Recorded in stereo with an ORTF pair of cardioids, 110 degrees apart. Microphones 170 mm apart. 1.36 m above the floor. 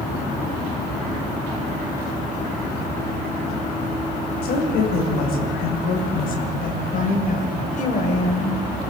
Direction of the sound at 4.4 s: 65° left.